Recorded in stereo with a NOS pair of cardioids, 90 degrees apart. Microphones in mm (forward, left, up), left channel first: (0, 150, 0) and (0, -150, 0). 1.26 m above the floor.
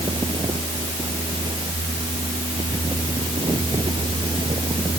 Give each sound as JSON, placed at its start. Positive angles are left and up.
{"t": 0.0, "sound": "a fan", "azimuth_deg": -15}